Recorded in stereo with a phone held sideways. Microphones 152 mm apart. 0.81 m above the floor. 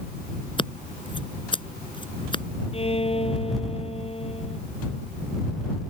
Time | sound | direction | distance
0.6 | scissors | 30° left (ahead or behind) | ?
2.7 | a violin | 40° left (ahead or behind) | ?